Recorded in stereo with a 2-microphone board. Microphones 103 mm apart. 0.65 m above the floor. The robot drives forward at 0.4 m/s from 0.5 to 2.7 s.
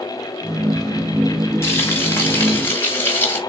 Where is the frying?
25° left (ahead or behind), 1.5 m; by 3.4 s 20° left (ahead or behind), 1.7 m.